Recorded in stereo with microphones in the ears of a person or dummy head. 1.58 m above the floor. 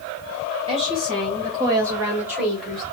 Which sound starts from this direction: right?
A woman speaking, at 0.7 s.